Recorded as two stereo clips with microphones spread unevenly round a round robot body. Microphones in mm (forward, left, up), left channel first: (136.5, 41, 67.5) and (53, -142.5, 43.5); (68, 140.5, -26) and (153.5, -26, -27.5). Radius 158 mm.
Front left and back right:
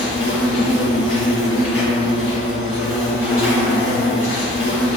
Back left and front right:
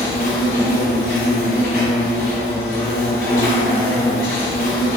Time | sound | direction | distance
0.0 | an insect | 110° left | 1.7 m